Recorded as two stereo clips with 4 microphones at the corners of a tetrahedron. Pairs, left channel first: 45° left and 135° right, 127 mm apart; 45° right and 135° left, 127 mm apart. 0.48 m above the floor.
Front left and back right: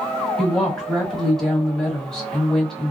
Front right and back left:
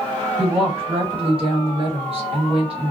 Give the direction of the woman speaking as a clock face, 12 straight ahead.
8 o'clock.